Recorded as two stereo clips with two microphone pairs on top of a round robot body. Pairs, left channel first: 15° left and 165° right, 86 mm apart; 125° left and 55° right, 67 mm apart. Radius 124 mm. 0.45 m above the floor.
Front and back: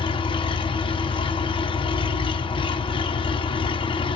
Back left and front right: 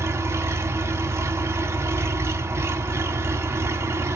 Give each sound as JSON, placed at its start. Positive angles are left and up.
{"t": 0.0, "sound": "an engine running", "azimuth_deg": -5, "distance_m": 2.0}